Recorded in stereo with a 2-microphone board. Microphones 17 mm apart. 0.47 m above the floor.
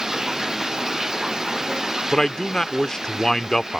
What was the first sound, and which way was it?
Running water, 35° right (ahead or behind).